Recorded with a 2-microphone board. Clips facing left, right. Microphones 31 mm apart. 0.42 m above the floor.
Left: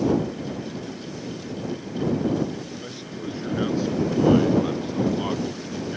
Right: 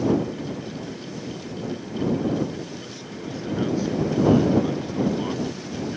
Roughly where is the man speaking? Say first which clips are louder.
Left 1 dB; left.